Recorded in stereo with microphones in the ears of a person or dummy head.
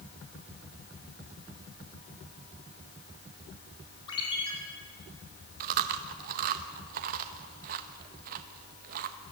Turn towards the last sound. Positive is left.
turn(degrees=-40)  # may be behind; listen again after turning